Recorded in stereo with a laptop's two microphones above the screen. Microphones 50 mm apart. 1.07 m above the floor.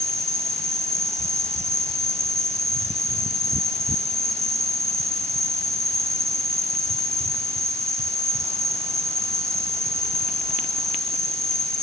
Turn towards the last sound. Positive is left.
turn(degrees=-75)  # may be behind; listen again after turning